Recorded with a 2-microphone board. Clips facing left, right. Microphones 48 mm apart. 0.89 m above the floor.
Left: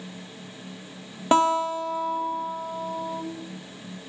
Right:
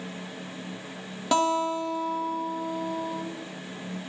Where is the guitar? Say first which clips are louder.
Left 3 dB; 25° left (ahead or behind), 0.9 m.